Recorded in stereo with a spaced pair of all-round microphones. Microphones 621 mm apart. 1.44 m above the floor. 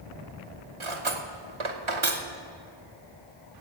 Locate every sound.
0.8 s cutlery clinking: 55° right (ahead or behind), 1.0 m